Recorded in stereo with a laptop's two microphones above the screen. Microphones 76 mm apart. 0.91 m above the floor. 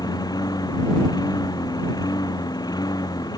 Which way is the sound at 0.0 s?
60° left (ahead or behind).